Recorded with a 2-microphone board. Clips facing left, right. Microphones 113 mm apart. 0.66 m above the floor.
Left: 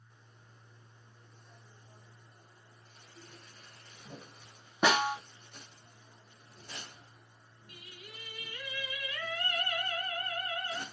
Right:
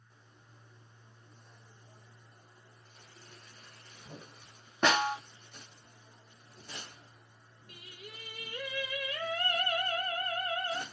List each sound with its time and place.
4.8 s a snare drum: 10° left (ahead or behind), 0.6 m
7.7 s singing: 45° right (ahead or behind), 0.7 m